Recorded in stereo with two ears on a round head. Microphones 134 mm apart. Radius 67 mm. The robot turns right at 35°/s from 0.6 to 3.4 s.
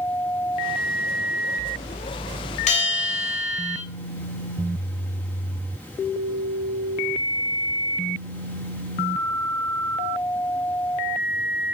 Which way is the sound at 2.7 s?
45° left (ahead or behind).